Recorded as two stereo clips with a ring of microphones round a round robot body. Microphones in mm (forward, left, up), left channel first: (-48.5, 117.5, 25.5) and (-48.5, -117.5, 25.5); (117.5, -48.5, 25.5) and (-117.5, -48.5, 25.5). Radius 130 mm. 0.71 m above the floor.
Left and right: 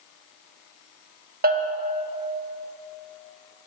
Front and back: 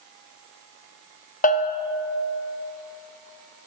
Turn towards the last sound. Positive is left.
turn(degrees=-45)